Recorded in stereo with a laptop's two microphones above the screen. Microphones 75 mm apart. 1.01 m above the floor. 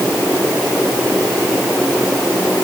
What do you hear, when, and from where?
Only background noise.